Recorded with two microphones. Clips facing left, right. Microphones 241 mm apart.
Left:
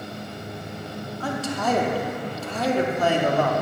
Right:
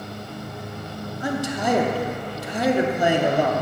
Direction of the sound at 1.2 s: 15° right (ahead or behind).